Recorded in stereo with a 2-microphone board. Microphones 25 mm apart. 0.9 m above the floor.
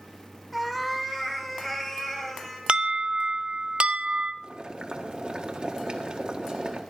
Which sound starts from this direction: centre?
A cat meowing, at 0.5 s.